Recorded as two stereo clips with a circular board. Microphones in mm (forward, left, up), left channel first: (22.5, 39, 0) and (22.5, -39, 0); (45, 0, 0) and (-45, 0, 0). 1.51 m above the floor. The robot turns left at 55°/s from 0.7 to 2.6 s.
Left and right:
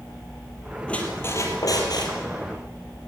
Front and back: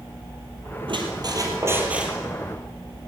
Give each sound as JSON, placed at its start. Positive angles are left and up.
{"t": 0.9, "sound": "a squeak", "azimuth_deg": 165, "distance_m": 3.5}